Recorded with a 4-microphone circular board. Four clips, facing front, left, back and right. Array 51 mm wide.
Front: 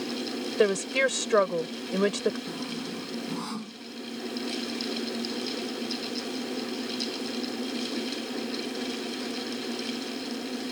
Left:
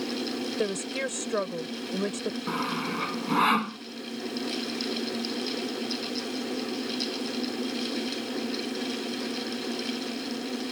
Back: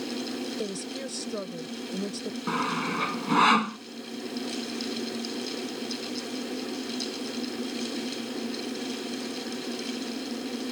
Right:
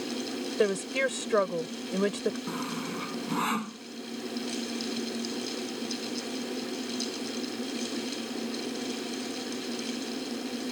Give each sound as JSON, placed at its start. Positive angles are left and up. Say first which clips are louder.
{"t": 0.6, "sound": "a woman speaking", "louder": "right 6 dB, front 10 dB", "azimuth_deg": -15}
{"t": 2.5, "sound": "sawing", "louder": "left 4 dB, back 7 dB", "azimuth_deg": 155}